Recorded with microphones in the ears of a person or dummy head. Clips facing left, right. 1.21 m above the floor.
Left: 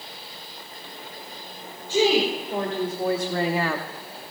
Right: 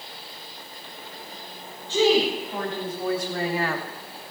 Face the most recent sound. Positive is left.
turn(degrees=85)